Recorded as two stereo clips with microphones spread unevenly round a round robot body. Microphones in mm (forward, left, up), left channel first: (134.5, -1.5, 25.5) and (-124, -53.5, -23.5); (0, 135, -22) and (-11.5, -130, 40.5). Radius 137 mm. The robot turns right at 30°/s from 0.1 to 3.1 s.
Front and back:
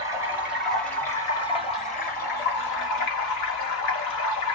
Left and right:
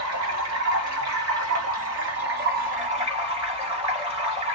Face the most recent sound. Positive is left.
turn(degrees=-15)